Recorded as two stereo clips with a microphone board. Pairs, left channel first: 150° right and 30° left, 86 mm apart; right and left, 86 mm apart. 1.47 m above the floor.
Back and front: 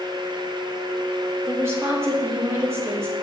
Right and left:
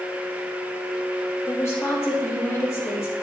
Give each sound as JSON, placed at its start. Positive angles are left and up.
{"t": 1.5, "sound": "a woman speaking", "azimuth_deg": -30, "distance_m": 2.5}